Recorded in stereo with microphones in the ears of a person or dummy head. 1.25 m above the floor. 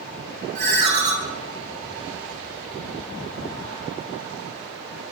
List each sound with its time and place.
0.6 s a ringtone: 35° right (ahead or behind), 1.2 m